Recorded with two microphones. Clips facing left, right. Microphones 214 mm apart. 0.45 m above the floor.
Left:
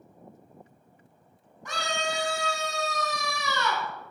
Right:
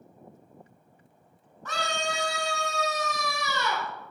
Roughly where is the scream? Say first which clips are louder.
Even; centre.